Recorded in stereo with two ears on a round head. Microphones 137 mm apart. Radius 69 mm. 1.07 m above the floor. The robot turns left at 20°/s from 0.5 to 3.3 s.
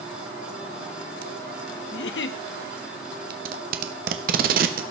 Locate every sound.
1.9 s a giggle: 85° left, 0.6 m; by 2.4 s 80° left, 0.6 m
3.3 s tape being pulled: 60° right (ahead or behind), 1.0 m